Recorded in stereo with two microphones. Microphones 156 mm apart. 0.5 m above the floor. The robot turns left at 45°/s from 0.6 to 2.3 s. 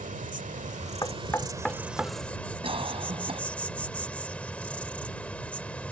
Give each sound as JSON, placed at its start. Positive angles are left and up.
{"t": 0.0, "sound": "an insect", "azimuth_deg": -115}
{"t": 1.0, "sound": "knocking", "side_deg": 30}
{"t": 2.6, "sound": "a cough", "side_deg": -35}